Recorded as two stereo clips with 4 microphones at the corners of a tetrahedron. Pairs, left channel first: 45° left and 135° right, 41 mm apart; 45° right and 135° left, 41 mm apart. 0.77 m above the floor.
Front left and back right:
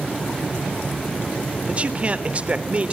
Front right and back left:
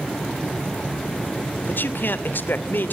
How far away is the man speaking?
About 2.5 m.